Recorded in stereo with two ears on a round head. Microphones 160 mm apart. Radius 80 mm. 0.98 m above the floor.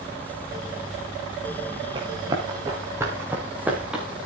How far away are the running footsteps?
About 5.5 m.